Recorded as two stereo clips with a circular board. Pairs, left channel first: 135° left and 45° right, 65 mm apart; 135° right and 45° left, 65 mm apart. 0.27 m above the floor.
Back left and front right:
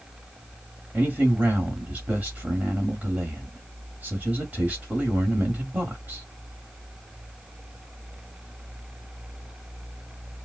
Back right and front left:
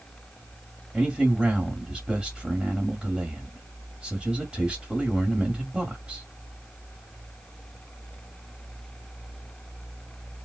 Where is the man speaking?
15° right, 1.8 m.